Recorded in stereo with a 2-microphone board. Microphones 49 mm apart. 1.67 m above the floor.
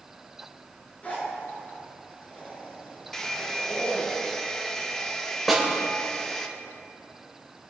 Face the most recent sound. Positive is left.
turn(degrees=0)  # may be behind; listen again after turning